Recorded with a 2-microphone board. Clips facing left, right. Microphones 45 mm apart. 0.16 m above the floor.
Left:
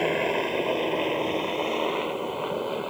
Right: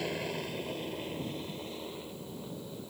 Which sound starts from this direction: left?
A helicopter, at 0.0 s.